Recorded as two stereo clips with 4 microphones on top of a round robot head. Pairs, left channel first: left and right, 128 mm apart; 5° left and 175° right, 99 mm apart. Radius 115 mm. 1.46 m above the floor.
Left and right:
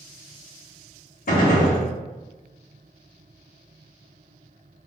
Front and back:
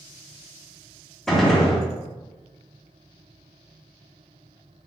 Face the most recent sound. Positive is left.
turn(degrees=90)